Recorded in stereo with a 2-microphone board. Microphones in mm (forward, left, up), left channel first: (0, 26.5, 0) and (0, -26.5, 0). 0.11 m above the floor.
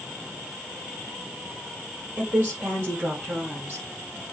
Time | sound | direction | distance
2.2 | a woman speaking | 25° right (ahead or behind) | 3.5 m